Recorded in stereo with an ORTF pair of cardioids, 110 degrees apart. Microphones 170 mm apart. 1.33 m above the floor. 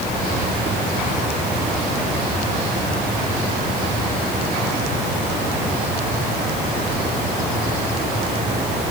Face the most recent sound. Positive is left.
No sound to turn to.